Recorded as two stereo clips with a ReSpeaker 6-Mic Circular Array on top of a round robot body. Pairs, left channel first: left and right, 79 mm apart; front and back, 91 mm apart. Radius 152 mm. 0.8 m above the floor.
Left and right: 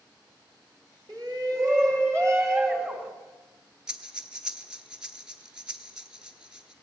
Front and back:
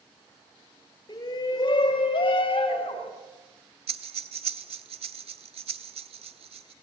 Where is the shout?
50° right, 5 m; by 3.1 s 25° right, 4.5 m.